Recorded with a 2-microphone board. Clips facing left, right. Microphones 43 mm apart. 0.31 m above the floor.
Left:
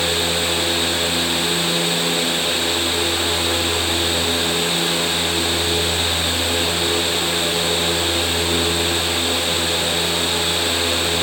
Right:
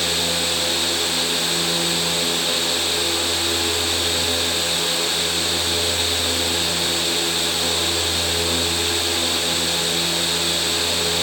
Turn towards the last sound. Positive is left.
No sound to turn to.